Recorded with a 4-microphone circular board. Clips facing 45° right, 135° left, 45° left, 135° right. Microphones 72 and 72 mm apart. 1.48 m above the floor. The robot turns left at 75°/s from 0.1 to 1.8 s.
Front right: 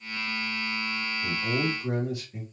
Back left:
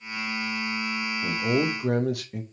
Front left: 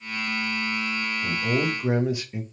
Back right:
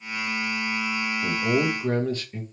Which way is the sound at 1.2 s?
165° left.